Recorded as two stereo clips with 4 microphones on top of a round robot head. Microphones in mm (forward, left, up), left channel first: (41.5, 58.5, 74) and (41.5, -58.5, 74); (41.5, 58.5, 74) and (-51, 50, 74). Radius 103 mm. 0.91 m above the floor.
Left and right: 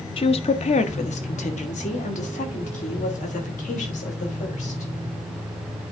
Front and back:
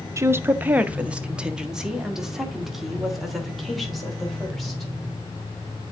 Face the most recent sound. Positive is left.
turn(degrees=95)